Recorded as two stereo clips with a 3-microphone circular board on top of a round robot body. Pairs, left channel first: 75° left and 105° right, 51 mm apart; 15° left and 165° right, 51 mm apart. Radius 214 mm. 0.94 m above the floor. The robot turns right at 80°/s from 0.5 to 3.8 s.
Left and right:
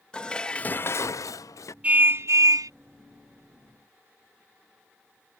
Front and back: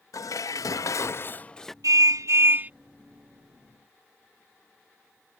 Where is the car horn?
170° right; by 2.7 s 100° right.